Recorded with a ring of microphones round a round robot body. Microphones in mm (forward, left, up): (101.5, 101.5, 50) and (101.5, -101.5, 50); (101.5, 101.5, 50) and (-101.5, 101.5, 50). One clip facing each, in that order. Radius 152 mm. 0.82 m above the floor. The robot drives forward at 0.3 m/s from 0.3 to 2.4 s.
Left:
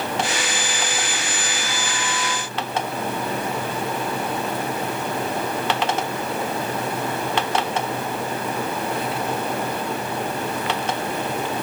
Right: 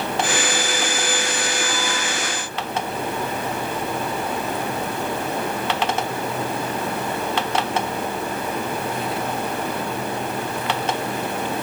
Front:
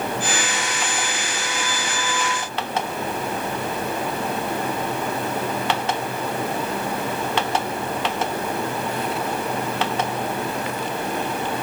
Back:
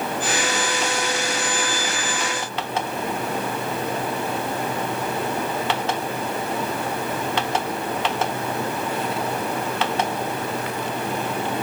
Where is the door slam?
No door slam in this recording.